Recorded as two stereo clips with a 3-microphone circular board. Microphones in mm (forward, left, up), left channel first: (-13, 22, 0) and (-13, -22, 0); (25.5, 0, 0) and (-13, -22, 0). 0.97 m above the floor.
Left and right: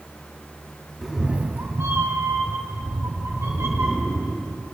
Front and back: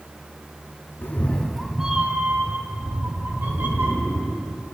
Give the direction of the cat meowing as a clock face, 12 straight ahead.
12 o'clock.